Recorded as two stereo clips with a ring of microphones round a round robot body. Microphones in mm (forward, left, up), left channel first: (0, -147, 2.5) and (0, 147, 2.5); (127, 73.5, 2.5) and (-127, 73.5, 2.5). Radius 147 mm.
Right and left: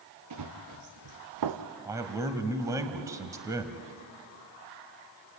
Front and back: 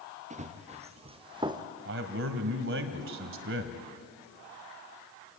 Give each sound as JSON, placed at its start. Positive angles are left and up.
{"t": 0.3, "sound": "running footsteps", "azimuth_deg": 120, "distance_m": 2.5}
{"t": 1.9, "sound": "a man speaking", "azimuth_deg": 165, "distance_m": 1.9}